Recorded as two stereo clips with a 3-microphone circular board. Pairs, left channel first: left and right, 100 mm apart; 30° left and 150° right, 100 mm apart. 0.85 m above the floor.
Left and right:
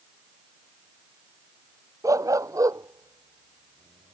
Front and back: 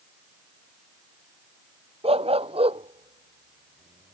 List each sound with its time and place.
2.0 s a dog barking: 145° right